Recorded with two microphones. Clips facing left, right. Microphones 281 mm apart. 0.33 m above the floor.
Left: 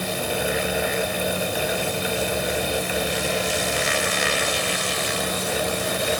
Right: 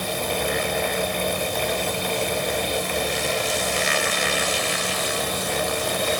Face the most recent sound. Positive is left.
No sound to turn to.